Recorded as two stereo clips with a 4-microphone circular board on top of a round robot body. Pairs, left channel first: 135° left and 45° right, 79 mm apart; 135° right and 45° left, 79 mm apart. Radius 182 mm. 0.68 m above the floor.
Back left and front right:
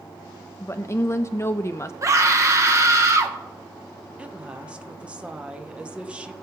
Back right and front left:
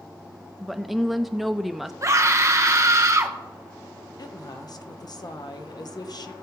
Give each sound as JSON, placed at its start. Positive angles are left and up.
{"t": 0.6, "sound": "a woman speaking", "azimuth_deg": 130, "distance_m": 0.7}
{"t": 2.0, "sound": "a scream", "azimuth_deg": 0, "distance_m": 1.9}
{"t": 4.2, "sound": "a woman speaking", "azimuth_deg": -120, "distance_m": 1.3}